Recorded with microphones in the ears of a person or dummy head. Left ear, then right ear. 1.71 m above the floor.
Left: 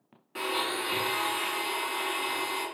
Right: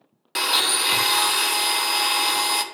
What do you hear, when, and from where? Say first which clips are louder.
0.3 s a blender: right 10 dB; 65° right (ahead or behind), 0.6 m